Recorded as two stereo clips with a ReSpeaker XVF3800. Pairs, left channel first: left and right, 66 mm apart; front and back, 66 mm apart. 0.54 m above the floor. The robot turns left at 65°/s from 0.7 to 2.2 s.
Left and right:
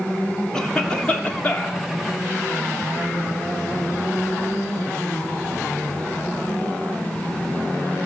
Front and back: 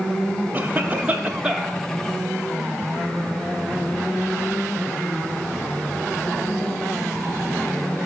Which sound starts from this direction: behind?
A cough, at 0.5 s.